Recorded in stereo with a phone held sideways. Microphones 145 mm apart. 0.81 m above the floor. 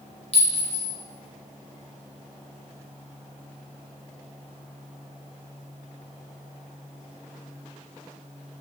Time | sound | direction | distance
0.3 | a clink | 50° left (ahead or behind) | 0.7 m